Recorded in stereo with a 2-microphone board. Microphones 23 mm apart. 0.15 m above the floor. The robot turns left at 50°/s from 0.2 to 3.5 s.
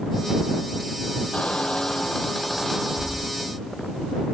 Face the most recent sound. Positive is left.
turn(degrees=-45)